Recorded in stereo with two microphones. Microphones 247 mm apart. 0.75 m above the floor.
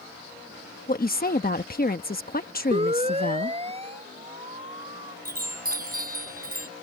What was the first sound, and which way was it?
A woman speaking, 35° left (ahead or behind).